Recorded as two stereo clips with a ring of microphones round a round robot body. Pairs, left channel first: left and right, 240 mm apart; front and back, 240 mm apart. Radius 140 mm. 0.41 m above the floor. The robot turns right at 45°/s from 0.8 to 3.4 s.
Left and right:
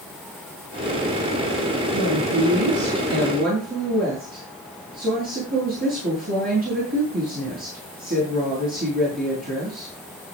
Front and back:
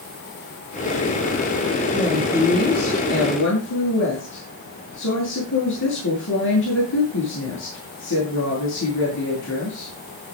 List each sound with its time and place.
1.9 s a woman speaking: 105° right, 9.5 m; by 9.9 s 35° right, 9.5 m